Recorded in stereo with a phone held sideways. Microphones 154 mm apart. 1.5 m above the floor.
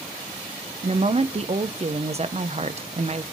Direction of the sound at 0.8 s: 45° right (ahead or behind).